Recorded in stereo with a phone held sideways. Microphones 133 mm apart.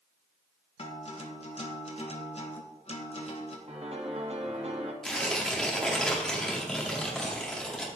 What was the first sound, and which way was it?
A guitar, 50° left (ahead or behind).